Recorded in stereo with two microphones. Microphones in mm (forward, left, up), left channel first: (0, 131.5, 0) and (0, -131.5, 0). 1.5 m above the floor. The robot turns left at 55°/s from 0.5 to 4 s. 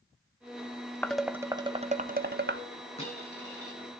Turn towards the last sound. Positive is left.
turn(degrees=100)